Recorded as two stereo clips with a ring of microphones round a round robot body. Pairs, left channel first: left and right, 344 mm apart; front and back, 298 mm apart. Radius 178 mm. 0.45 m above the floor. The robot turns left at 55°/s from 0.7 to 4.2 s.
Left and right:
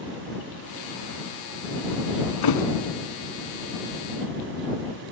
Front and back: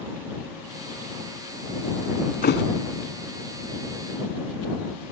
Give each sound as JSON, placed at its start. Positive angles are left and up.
{"t": 2.4, "sound": "a thud", "azimuth_deg": 60}